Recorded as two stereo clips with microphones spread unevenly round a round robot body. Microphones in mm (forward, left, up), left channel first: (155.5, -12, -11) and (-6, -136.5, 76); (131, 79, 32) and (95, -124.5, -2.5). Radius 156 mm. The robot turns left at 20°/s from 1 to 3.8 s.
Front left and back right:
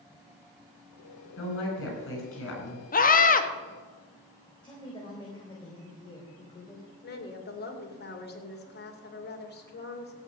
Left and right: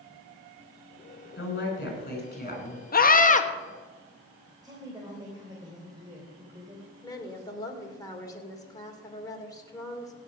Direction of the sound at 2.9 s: 35° left.